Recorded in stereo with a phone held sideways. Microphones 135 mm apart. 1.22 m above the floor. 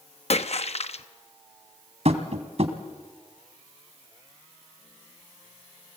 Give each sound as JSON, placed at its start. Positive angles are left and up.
{"t": 0.3, "sound": "a splash", "side_deg": 55, "distance_m": 0.8}
{"t": 2.0, "sound": "tapping", "side_deg": -55, "distance_m": 2.0}